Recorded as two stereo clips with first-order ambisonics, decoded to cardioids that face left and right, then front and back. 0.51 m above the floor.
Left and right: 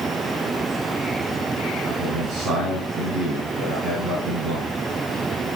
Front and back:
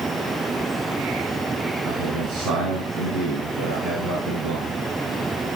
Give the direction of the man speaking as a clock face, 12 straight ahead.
5 o'clock.